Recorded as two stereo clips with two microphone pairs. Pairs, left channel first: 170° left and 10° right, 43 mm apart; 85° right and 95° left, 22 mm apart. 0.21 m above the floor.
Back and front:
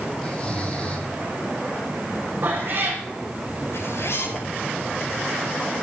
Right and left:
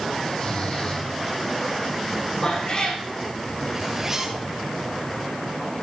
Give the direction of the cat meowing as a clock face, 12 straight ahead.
1 o'clock.